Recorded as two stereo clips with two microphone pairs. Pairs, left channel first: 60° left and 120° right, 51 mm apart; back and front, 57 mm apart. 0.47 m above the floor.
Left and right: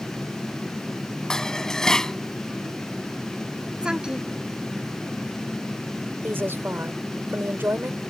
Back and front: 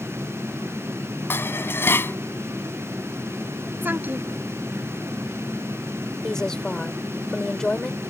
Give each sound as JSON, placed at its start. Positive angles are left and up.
{"t": 1.3, "sound": "dishes clattering", "azimuth_deg": 135}
{"t": 3.8, "sound": "a woman speaking", "azimuth_deg": -50}
{"t": 6.2, "sound": "a woman speaking", "azimuth_deg": -105}